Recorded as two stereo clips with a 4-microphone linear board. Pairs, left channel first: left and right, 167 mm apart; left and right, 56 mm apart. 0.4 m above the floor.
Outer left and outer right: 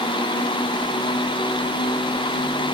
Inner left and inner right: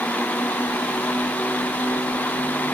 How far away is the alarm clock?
I don't hear an alarm clock.